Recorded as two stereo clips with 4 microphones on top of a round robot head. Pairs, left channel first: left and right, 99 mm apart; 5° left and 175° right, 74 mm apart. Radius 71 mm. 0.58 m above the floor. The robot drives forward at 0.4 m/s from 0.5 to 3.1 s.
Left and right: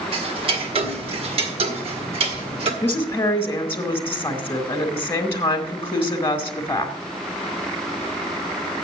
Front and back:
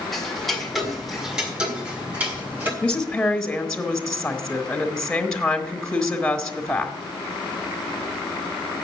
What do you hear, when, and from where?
0.1 s ticking: 80° right, 1.8 m; by 2.7 s 110° right, 1.9 m
2.8 s a woman speaking: 60° left, 1.3 m; by 7.0 s 75° left, 1.3 m